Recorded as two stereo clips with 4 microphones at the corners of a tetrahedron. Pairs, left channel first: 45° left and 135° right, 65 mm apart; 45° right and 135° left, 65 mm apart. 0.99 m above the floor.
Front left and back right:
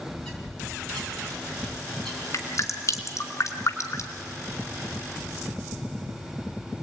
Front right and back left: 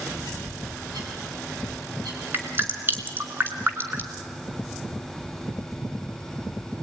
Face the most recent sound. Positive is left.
turn(degrees=80)